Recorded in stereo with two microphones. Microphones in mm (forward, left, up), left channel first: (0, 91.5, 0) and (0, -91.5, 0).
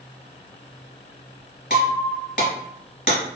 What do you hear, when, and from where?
1.7 s breaking glass: 55° left (ahead or behind), 1.2 m